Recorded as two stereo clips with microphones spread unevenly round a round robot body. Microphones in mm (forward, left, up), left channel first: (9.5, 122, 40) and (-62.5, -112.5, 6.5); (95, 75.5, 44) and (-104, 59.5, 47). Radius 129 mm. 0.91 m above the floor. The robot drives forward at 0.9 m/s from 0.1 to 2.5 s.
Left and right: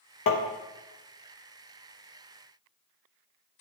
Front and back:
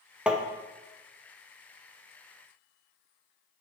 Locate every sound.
0.3 s tapping: 100° left, 0.9 m; by 0.4 s 110° left, 0.9 m